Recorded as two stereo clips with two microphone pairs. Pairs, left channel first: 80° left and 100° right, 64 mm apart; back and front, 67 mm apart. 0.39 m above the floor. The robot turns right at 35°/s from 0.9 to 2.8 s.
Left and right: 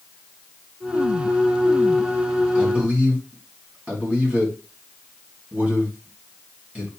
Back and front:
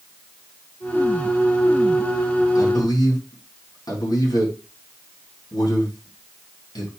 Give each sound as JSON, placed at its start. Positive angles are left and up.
{"t": 2.5, "sound": "a man speaking", "azimuth_deg": -175, "distance_m": 4.0}